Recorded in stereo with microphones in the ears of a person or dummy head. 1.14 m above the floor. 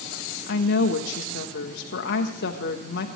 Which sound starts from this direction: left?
A woman speaking, at 0.5 s.